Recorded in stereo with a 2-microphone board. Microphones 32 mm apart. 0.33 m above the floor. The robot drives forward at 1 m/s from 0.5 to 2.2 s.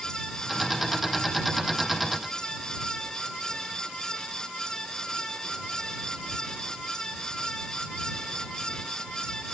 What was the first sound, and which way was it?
Only background noise.